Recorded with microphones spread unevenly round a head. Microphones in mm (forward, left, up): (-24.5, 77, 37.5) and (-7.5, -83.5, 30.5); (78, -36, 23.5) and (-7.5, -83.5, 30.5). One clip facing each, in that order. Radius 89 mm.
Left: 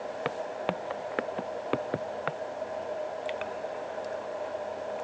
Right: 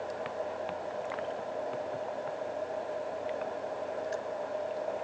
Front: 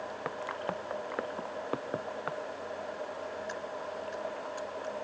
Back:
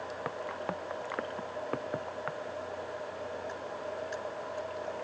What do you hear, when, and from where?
0.2 s footsteps: 120° left; by 2.4 s 110° left